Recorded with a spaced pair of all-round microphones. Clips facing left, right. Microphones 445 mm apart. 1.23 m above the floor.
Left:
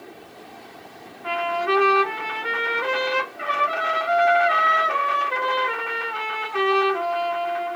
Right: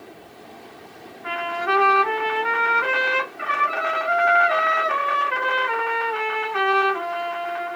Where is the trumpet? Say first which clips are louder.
Left 3 dB; 55° left (ahead or behind), 1.3 m.